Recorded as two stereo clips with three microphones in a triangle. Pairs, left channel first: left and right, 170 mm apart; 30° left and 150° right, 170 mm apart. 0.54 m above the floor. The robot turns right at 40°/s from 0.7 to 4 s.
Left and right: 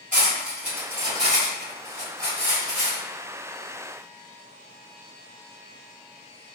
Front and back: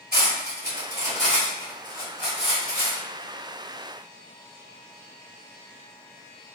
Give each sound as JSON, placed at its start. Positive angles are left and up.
{"t": 0.1, "sound": "cutlery clinking", "azimuth_deg": -130, "distance_m": 1.9}